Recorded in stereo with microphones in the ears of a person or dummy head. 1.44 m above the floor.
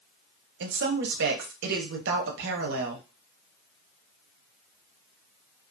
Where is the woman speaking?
55° right (ahead or behind), 0.7 m.